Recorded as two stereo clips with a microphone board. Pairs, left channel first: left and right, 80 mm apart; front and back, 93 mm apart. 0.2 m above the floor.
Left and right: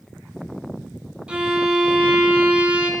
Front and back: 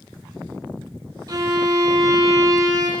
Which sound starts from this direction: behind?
A violin, at 1.3 s.